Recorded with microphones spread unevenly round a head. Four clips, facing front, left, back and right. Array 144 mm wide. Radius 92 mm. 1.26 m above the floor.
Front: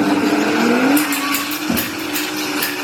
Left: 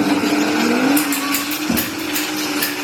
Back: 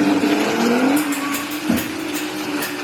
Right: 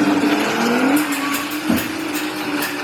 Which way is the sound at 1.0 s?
165° left.